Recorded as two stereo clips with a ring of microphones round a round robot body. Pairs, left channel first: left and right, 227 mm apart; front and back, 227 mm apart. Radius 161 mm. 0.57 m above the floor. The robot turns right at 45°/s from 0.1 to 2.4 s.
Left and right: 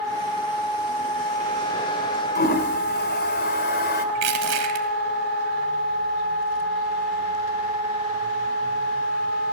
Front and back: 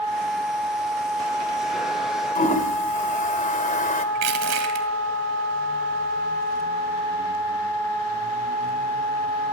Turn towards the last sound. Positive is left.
turn(degrees=-135)